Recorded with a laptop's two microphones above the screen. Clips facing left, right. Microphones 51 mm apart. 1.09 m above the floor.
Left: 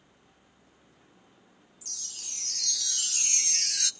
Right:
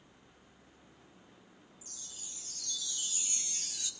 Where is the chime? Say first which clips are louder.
Left 8 dB; 70° left (ahead or behind), 0.5 m.